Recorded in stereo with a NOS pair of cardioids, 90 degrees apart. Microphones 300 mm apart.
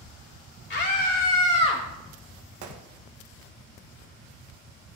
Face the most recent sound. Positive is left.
turn(degrees=-70)